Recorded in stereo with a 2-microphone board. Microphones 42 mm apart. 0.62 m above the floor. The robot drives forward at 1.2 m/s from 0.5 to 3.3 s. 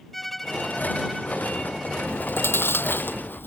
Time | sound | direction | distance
0.1 | a violin | 5° left (ahead or behind) | ?
2.1 | chewing | 80° left | ?